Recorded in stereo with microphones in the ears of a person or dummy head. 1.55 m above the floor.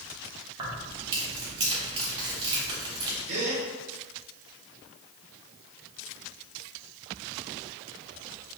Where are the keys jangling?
25° right (ahead or behind), 1.2 m.